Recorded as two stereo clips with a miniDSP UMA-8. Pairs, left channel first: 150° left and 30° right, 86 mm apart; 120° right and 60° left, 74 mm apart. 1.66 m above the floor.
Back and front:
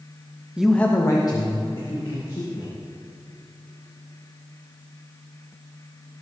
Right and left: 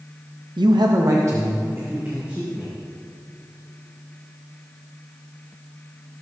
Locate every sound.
0.6 s a man speaking: 50° left, 0.7 m; by 2.7 s 130° left, 3 m